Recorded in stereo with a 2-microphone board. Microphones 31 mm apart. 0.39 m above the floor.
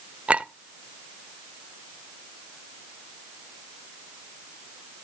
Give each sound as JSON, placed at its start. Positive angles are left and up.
{"t": 0.3, "sound": "a clink", "side_deg": -40, "distance_m": 0.6}